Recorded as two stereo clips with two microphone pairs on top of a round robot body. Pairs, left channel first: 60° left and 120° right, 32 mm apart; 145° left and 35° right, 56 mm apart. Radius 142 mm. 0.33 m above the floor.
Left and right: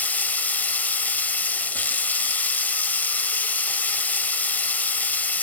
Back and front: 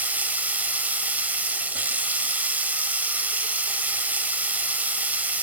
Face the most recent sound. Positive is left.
turn(degrees=30)